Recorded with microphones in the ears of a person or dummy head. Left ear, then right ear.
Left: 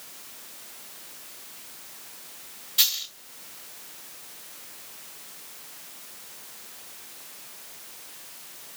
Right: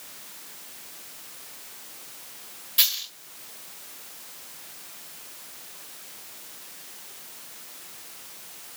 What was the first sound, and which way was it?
A dropped coin, 10° right (ahead or behind).